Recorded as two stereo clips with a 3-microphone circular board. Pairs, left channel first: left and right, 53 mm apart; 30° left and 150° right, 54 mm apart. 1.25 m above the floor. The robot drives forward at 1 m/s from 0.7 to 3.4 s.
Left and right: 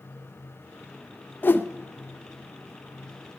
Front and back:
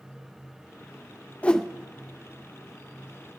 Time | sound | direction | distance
1.4 | a whoosh | 80° left | 0.5 m